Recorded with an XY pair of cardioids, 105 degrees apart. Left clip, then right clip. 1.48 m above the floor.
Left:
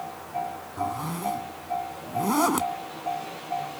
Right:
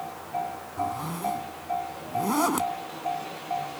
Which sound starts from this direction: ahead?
A zipper, at 0.8 s.